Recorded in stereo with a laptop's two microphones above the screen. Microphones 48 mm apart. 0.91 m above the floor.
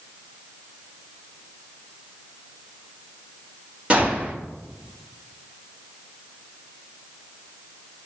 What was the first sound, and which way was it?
A gunshot, 25° right (ahead or behind).